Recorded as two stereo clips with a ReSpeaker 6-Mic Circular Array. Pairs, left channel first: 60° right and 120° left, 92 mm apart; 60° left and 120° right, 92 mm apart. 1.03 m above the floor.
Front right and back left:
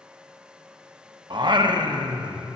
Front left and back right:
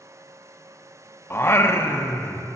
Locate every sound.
1.3 s singing: 115° left, 0.6 m